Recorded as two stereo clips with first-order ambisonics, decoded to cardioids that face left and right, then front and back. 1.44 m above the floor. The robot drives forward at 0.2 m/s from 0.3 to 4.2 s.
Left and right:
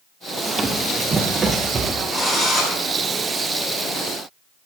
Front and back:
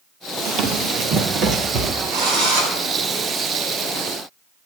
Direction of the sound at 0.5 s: 170° right.